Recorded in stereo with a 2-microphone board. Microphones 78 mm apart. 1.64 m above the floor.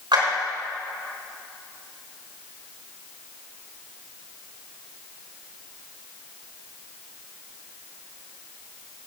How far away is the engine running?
I don't hear an engine running.